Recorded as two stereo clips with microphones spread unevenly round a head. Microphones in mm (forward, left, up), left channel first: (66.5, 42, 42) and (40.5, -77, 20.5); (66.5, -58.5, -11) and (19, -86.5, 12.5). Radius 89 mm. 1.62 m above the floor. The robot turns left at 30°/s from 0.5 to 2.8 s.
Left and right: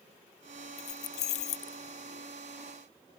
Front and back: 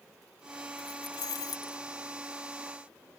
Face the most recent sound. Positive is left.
turn(degrees=35)